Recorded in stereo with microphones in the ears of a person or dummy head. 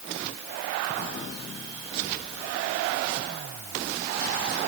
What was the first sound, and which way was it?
Only background noise.